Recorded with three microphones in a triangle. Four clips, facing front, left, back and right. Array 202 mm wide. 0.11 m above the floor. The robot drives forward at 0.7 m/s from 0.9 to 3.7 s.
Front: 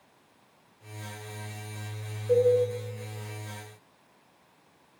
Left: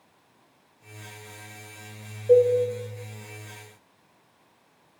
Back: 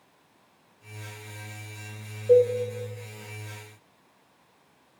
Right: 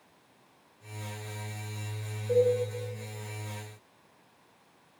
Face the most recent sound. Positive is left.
turn(degrees=145)